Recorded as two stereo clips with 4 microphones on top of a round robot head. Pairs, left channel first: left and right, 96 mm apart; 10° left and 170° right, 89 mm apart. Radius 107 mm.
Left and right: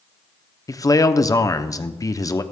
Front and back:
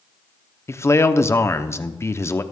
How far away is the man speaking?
About 0.9 m.